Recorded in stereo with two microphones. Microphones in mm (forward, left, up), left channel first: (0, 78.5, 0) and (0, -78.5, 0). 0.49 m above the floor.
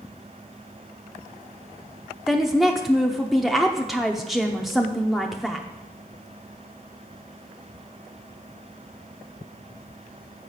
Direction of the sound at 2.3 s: Centre (ahead or behind).